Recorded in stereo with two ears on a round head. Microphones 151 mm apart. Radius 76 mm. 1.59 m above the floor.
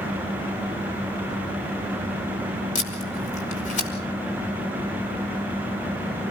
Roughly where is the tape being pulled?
Left.